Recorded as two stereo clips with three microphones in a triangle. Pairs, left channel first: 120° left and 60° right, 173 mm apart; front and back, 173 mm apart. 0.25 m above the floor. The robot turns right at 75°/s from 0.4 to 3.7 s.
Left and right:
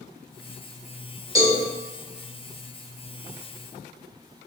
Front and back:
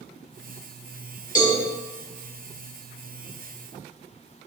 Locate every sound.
1.4 s a cowbell: straight ahead, 0.8 m; by 1.6 s 20° left, 0.8 m